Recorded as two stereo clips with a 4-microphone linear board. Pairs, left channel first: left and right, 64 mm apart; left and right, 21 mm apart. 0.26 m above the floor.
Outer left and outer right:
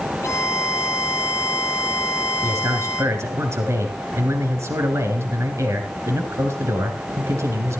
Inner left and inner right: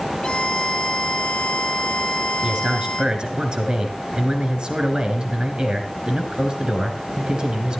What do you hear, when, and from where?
0.2 s a violin: 50° left (ahead or behind), 1.7 m
2.4 s a man speaking: 50° right (ahead or behind), 2.5 m